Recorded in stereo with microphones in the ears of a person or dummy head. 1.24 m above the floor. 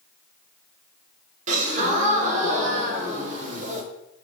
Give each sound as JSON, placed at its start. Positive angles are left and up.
{"t": 1.5, "sound": "a gasp", "side_deg": -40, "distance_m": 0.6}